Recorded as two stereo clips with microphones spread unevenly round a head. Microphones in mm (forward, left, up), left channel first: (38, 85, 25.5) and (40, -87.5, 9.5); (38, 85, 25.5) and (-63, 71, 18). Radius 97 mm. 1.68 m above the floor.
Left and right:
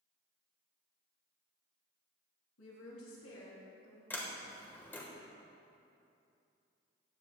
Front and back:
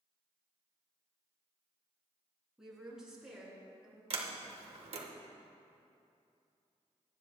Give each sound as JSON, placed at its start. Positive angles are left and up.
{"t": 2.6, "sound": "a woman speaking", "azimuth_deg": 105, "distance_m": 3.0}
{"t": 4.1, "sound": "a sliding door", "azimuth_deg": 170, "distance_m": 1.2}